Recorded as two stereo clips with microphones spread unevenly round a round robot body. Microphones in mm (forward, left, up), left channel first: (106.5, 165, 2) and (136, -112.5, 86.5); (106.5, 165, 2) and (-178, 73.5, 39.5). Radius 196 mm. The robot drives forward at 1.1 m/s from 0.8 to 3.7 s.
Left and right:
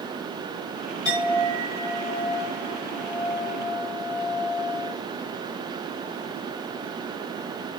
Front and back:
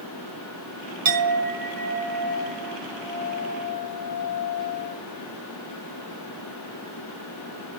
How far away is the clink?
About 1.9 m.